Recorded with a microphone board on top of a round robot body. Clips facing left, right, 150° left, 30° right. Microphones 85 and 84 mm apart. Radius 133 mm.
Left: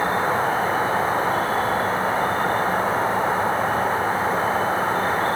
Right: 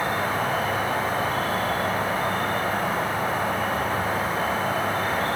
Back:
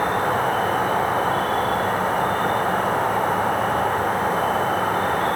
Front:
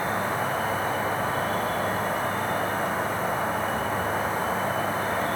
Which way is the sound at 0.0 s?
145° left.